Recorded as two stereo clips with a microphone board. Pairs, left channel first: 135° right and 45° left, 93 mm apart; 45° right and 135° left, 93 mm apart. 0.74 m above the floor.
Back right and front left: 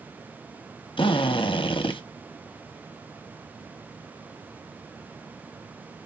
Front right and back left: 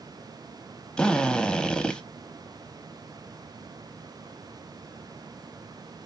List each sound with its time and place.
1.0 s a drill: 125° right, 0.8 m